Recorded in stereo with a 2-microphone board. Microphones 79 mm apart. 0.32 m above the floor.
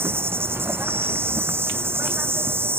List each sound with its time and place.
0.0 s an insect: 30° right (ahead or behind)